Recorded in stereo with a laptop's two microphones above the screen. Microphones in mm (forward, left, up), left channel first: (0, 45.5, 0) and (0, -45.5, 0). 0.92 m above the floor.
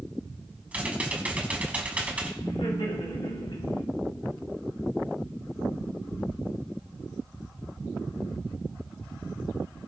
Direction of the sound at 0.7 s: 15° right (ahead or behind).